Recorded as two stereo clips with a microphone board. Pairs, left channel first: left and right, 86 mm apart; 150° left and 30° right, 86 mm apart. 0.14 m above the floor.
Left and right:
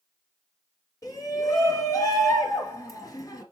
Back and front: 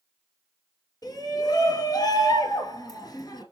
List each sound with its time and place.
1.0 s a shout: 125° left, 2.5 m